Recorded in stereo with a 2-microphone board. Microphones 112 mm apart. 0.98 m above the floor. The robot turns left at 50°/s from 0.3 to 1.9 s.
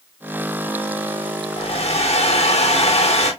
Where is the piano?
I don't hear a piano.